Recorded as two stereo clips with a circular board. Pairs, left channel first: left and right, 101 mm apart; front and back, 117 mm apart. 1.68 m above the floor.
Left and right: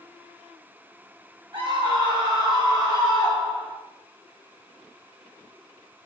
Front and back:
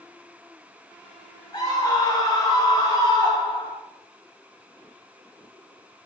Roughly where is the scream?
Ahead right.